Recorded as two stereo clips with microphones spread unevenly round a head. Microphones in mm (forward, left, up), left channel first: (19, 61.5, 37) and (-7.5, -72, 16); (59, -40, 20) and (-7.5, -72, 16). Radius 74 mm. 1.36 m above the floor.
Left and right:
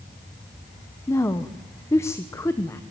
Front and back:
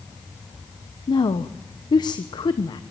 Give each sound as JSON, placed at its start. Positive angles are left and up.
{"t": 1.1, "sound": "a woman speaking", "azimuth_deg": 5, "distance_m": 1.0}